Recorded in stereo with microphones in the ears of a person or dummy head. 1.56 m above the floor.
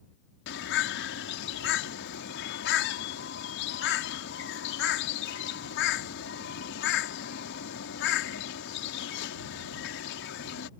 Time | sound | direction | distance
0.5 | a bird | 65° left (ahead or behind) | ?